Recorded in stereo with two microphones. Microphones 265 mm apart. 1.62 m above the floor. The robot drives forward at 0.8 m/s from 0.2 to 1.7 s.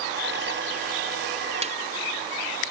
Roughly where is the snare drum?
Right.